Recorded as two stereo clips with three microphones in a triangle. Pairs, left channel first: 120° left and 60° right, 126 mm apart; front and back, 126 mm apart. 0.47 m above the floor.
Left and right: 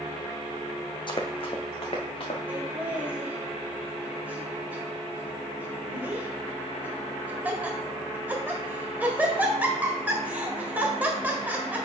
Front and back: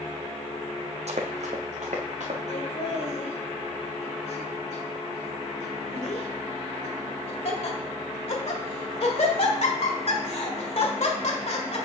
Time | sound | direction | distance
1.1 | running footsteps | 165° left | 0.9 m
2.5 | laughter | 15° left | 1.8 m